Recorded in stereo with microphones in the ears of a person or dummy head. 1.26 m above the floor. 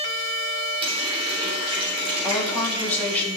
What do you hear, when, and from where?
0.8 s a running tap: 30° right (ahead or behind), 4.5 m
2.2 s a woman speaking: 10° left (ahead or behind), 2.5 m